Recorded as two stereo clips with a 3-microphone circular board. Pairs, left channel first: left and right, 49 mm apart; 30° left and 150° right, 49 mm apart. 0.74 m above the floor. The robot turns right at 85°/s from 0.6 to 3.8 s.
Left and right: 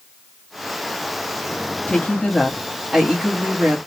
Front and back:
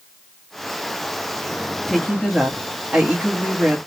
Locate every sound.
1.9 s a woman speaking: 100° left, 1.0 m; by 3.8 s 100° right, 1.0 m